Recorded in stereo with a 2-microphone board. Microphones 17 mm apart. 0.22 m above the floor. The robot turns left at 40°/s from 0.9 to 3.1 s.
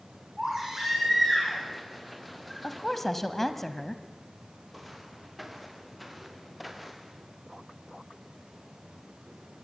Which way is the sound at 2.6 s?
10° left (ahead or behind).